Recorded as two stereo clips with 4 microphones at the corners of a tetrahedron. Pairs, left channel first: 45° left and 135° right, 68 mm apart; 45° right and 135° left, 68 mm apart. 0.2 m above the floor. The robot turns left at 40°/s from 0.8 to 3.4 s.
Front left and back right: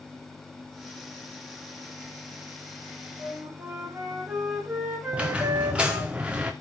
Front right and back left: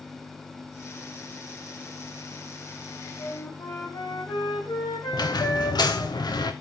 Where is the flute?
65° right, 6 m; by 6.1 s 70° right, 6 m.